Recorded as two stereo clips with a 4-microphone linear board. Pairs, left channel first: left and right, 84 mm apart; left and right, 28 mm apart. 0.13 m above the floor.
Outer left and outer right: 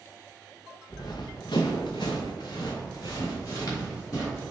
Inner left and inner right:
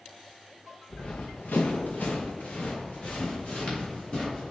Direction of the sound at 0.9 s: 55° left (ahead or behind).